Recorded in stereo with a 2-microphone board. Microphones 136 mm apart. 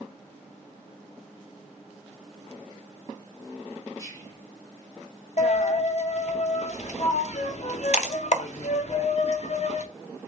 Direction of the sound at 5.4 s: 60° left (ahead or behind).